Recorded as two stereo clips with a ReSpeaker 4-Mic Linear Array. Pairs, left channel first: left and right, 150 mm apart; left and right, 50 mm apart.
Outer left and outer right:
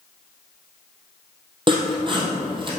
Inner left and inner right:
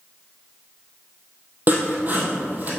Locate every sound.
1.7 s sawing: 35° right (ahead or behind), 1.6 m